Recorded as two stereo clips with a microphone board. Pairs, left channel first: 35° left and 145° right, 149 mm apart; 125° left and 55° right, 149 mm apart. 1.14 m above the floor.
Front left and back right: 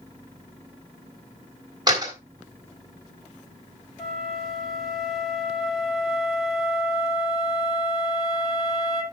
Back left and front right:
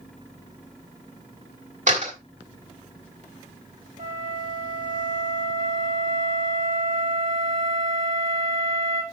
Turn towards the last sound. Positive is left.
turn(degrees=-55)